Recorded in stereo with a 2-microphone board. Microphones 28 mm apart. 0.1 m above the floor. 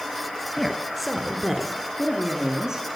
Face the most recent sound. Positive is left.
turn(degrees=-25)  # may be behind; listen again after turning